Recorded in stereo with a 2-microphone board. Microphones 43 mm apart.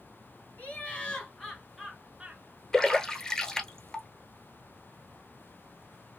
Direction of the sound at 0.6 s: 35° left (ahead or behind).